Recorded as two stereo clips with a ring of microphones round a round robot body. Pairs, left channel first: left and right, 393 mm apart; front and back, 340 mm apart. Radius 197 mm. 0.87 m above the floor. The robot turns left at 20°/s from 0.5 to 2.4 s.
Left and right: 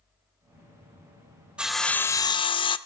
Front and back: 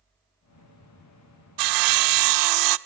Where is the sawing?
Straight behind, 0.7 m; by 2.8 s 165° left, 0.7 m.